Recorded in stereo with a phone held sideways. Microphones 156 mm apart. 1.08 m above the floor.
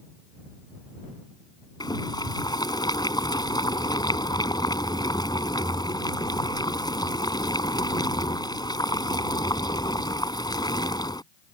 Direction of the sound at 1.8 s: 25° left (ahead or behind).